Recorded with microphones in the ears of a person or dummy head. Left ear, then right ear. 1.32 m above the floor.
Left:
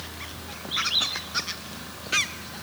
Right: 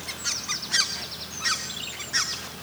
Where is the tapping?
No tapping in this recording.